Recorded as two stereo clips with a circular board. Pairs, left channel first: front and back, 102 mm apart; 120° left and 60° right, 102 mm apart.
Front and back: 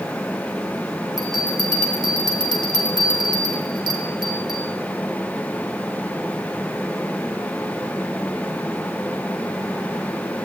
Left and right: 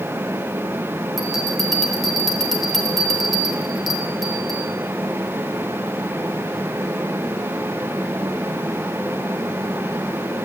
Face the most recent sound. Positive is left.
turn(degrees=-150)